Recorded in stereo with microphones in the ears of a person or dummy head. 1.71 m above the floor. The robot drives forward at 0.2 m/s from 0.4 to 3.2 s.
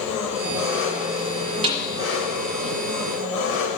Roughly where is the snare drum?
Right.